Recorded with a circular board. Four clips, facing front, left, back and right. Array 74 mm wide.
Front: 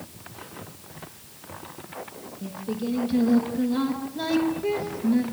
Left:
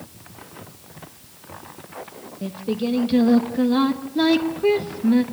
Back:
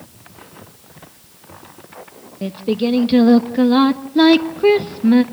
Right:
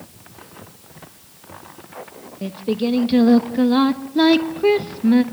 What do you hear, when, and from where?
2.4 s singing: 160° right, 1.1 m